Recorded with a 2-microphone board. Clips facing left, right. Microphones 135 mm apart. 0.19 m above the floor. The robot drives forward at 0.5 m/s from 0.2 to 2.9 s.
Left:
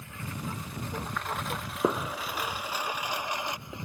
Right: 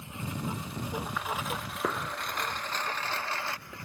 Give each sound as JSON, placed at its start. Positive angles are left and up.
{"t": 0.0, "sound": "a lawn mower", "side_deg": -20}
{"t": 1.8, "sound": "a gunshot", "side_deg": 25}